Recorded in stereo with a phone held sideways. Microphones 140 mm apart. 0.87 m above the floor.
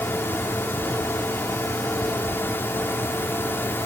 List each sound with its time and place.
0.0 s a fan: 15° left (ahead or behind), 0.7 m